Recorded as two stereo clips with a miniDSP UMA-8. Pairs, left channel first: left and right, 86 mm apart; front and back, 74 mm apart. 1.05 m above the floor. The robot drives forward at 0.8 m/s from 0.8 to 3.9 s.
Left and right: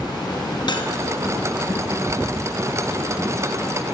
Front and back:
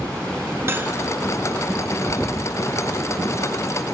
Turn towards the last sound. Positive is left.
turn(degrees=165)